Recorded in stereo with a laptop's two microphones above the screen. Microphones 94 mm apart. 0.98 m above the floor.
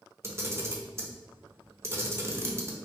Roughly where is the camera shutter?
Right.